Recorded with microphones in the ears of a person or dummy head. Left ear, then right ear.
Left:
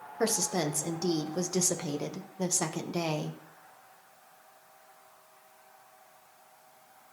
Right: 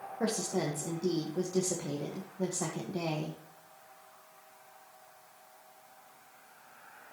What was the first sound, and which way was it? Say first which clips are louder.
A woman speaking: left 4 dB; 70° left (ahead or behind).